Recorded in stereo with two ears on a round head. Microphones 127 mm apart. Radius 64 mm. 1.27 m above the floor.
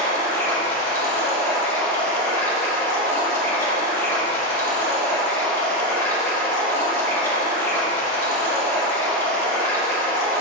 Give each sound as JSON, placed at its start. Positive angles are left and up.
{"t": 0.0, "sound": "running water", "side_deg": 20, "distance_m": 1.8}